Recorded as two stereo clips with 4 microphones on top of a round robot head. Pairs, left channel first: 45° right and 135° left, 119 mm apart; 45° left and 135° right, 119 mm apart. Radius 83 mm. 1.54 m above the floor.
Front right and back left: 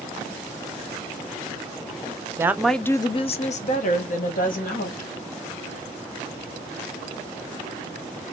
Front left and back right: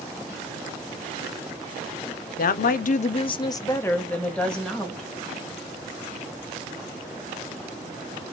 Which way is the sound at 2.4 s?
65° left.